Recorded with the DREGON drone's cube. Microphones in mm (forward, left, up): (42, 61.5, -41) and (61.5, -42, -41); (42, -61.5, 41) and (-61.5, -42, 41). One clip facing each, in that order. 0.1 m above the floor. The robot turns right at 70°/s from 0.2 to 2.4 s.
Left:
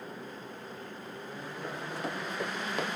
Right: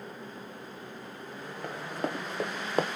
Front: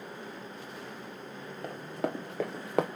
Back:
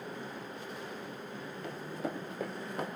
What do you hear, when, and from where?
1.6 s running footsteps: 60° right, 1.5 m; by 2.9 s 30° right, 0.6 m